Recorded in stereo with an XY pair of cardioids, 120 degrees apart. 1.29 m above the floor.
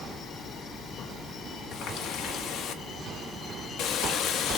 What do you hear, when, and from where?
1.7 s a running tap: 70° left, 1.3 m